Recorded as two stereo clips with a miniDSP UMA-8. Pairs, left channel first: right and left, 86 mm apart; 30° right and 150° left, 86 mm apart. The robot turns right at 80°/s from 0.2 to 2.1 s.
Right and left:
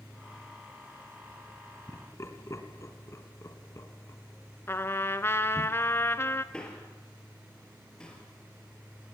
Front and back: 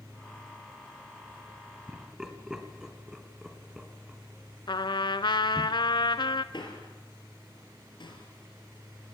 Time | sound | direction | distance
1.9 | laughter | 145° right | 2.0 m
4.7 | a trumpet | 30° right | 0.7 m
6.5 | a man speaking | 10° right | 4.5 m